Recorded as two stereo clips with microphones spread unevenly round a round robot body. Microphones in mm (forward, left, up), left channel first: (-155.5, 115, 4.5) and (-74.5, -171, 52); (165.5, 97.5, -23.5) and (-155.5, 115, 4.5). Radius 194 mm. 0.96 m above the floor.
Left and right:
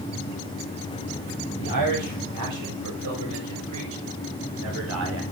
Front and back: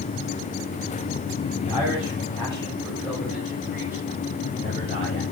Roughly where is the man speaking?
Right.